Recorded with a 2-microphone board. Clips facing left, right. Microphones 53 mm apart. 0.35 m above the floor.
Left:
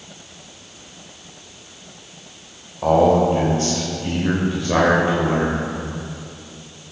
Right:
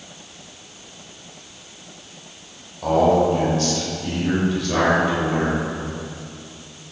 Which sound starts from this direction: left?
A man speaking, at 2.8 s.